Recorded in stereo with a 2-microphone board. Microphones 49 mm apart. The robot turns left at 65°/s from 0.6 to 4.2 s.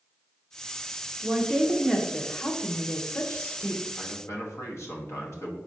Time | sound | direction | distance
1.2 | a woman speaking | 145° right | 0.9 m
4.0 | a man speaking | 75° left (ahead or behind) | 1.2 m